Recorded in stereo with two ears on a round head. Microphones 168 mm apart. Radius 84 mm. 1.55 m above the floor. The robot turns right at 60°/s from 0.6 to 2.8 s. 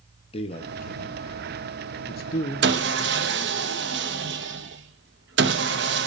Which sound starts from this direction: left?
A man speaking, at 0.3 s.